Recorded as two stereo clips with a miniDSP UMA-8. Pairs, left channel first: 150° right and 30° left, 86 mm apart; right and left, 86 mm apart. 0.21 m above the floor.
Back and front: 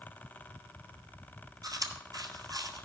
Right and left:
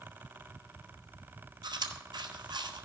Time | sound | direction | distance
1.6 | chewing | 70° left | 1.0 m